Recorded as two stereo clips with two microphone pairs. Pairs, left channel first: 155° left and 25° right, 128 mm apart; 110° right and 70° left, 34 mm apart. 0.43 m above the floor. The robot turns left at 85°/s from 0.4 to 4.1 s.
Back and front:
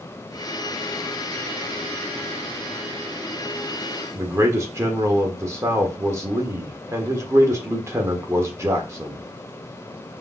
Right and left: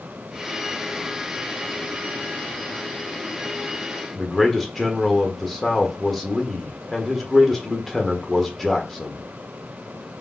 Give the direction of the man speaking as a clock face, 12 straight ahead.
1 o'clock.